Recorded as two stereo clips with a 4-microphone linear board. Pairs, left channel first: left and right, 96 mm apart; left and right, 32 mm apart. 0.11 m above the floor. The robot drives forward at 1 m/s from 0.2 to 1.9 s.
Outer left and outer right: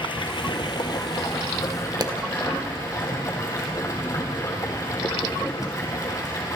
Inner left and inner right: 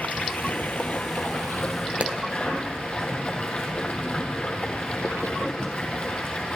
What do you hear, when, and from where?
0.0 s running water: 60° left (ahead or behind), 1.9 m; by 6.6 s 35° left (ahead or behind), 3 m
2.0 s a pop: 45° right (ahead or behind), 1.6 m